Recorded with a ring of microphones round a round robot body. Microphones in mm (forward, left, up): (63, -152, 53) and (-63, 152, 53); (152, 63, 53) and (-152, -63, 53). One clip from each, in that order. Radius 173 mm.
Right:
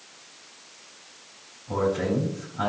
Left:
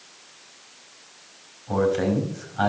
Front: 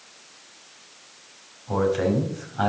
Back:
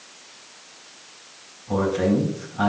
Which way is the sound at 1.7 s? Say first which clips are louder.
Left 3 dB, even; 85° left.